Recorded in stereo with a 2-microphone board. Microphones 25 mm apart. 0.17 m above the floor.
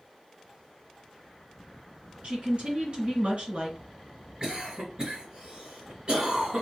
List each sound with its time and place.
2.2 s a woman speaking: 50° right (ahead or behind), 2.0 m
4.4 s a cough: 40° right (ahead or behind), 1.9 m